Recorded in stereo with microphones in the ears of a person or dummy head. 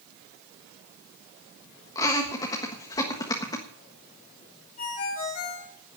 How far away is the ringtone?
About 4.5 m.